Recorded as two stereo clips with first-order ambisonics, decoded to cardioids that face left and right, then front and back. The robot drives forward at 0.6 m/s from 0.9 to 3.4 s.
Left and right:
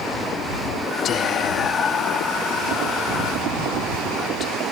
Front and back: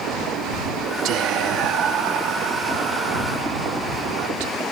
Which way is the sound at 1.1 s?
145° left.